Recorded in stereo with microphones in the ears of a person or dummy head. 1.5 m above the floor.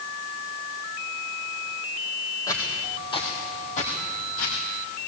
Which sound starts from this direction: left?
Footsteps, at 2.5 s.